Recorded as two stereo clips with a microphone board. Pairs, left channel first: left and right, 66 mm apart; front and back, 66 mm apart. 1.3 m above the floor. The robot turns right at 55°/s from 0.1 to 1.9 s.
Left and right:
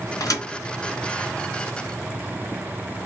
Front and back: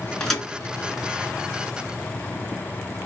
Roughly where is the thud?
Left.